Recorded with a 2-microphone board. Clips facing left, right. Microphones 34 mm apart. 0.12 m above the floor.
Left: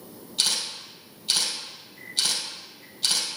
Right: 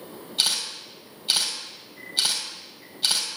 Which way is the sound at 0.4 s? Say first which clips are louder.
Right 1 dB; 15° right (ahead or behind).